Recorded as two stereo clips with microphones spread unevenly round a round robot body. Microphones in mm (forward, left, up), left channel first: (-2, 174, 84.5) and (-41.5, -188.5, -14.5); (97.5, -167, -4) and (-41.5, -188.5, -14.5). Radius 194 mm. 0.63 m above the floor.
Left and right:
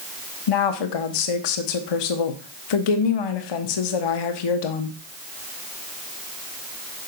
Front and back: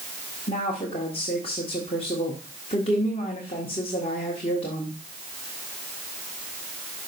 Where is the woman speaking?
70° left, 1.2 m.